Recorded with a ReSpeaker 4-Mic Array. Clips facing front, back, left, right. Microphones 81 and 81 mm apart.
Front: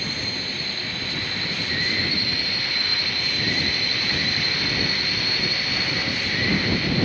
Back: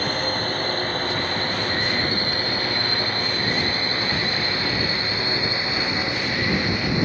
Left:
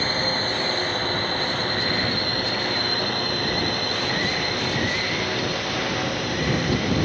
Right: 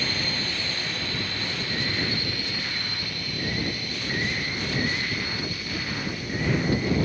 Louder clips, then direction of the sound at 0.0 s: Back 7 dB, left 6 dB; 140° left.